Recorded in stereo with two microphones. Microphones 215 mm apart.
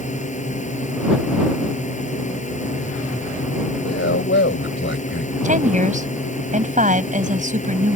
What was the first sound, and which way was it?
A drone, 35° left (ahead or behind).